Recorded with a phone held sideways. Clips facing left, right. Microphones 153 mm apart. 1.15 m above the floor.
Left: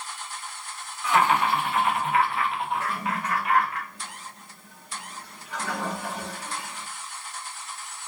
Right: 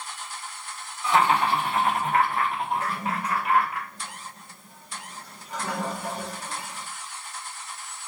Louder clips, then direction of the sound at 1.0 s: Even; 30° right (ahead or behind).